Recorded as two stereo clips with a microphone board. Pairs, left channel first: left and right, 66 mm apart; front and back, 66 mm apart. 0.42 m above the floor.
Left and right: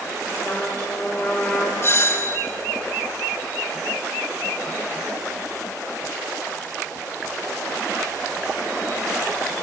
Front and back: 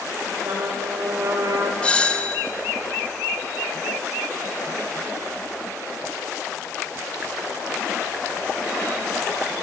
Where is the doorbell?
65° left, 1.7 m.